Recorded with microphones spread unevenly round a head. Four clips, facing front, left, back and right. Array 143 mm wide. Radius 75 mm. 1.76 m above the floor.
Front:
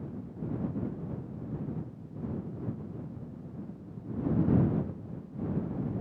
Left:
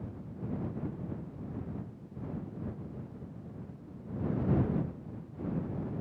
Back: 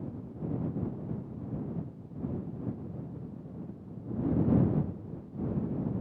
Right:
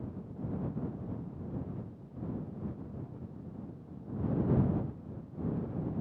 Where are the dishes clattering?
I don't hear dishes clattering.